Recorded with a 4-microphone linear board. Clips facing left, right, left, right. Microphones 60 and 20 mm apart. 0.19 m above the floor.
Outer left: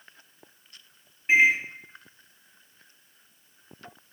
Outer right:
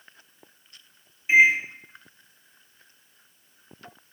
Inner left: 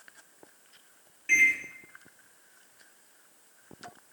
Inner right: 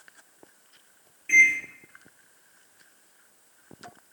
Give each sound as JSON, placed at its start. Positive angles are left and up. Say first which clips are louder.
{"t": 1.3, "sound": "a microwave", "louder": "outer right 2 dB, inner right 4 dB", "side_deg": 50, "distance_m": 1.7}